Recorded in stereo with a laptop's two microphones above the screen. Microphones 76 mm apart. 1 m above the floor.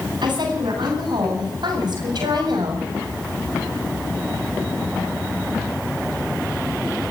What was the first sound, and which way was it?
A woman speaking, 70° right (ahead or behind).